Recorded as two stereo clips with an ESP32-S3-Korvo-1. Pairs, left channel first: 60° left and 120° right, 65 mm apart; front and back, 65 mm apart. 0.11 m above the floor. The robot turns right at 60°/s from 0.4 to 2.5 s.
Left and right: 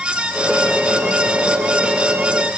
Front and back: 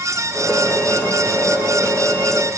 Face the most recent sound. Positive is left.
No sound to turn to.